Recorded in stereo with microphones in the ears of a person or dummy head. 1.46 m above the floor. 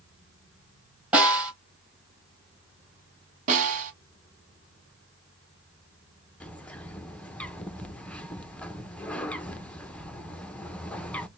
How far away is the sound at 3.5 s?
About 1.9 m.